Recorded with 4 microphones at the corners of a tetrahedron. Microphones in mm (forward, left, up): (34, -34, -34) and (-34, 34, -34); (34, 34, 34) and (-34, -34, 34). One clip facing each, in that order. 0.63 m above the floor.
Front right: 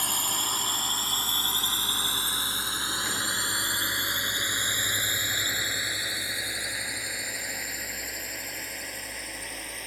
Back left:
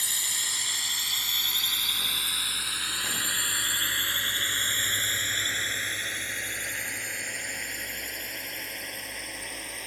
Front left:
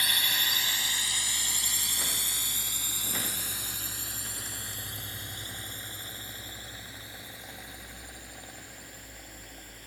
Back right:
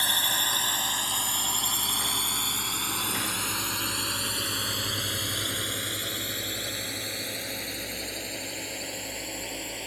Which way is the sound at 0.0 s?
80° right.